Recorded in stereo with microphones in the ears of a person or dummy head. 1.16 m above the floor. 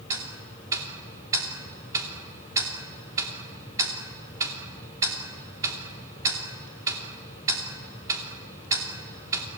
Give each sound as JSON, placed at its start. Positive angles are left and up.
{"t": 0.1, "sound": "ticking", "side_deg": -20, "distance_m": 2.5}